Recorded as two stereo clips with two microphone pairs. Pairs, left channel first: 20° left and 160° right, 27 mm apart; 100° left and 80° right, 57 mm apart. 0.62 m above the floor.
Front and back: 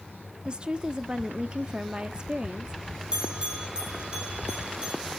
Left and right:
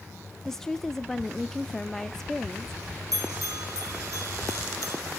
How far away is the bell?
About 5.5 m.